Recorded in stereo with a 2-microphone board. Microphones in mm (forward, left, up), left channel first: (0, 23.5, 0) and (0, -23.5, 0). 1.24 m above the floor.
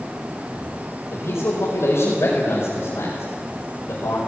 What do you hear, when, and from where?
1.1 s a man speaking: 60° left (ahead or behind), 6 m